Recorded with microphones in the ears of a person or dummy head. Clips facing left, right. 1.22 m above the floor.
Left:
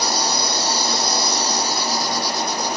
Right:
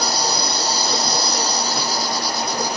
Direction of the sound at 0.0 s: 55° right (ahead or behind).